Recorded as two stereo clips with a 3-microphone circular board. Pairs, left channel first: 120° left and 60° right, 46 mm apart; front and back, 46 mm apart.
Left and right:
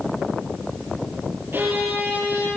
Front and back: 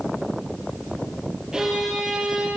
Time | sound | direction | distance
1.5 | a violin | 100° right | 5.5 m